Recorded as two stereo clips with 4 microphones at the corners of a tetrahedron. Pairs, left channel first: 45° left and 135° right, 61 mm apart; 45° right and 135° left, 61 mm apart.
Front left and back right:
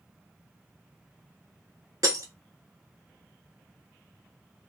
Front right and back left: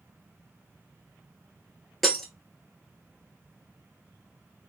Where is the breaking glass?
135° right, 0.9 m.